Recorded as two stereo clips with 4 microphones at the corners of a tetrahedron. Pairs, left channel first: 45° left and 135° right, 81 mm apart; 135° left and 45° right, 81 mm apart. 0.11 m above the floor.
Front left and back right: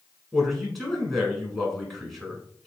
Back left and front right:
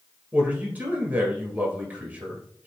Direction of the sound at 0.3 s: 40° right.